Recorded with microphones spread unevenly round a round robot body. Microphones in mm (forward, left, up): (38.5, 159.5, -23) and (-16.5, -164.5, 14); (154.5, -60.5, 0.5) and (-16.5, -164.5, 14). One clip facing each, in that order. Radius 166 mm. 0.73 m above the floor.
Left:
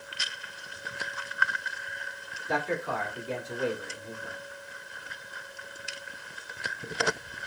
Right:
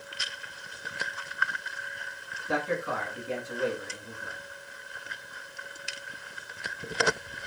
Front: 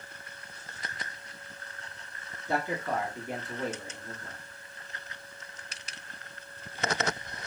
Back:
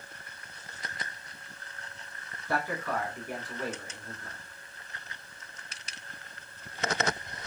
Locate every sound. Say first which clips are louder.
2.5 s a man speaking: right 1 dB, front 1 dB; 15° right, 1.0 m